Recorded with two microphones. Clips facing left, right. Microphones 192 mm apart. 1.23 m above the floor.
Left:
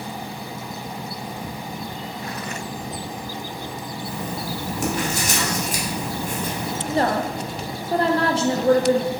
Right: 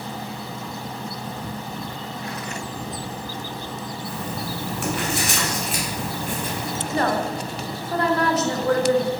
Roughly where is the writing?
Left.